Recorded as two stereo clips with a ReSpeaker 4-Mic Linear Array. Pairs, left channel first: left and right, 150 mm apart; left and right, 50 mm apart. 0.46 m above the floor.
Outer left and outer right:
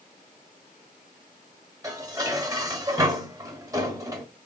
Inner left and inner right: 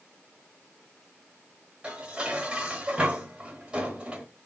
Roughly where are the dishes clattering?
Right.